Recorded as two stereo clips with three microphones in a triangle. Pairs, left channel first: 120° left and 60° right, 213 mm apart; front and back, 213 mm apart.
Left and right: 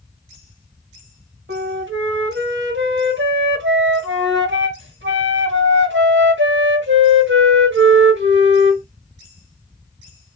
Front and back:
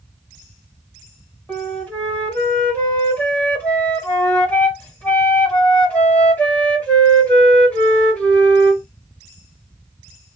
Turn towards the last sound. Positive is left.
turn(degrees=-80)